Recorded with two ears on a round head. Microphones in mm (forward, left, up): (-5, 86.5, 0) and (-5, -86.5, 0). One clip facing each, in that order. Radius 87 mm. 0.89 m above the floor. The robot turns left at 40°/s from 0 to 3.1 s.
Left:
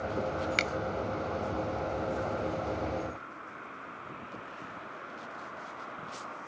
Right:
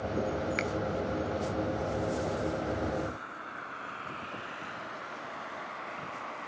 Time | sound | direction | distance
0.6 | a finger snap | 45° left (ahead or behind) | ?